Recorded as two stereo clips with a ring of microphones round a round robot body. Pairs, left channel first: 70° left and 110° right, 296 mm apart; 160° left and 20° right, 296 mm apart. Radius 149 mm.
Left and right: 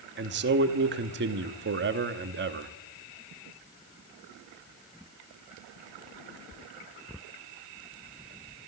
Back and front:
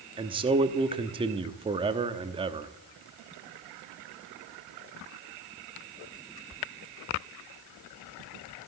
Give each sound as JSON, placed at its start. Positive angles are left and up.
{"t": 0.2, "sound": "a man speaking", "azimuth_deg": -85, "distance_m": 1.0}